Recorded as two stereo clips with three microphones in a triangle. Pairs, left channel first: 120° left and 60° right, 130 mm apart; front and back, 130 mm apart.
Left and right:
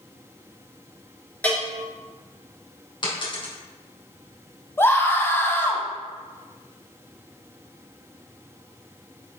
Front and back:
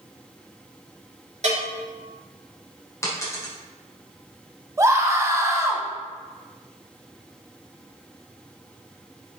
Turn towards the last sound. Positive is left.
turn(degrees=165)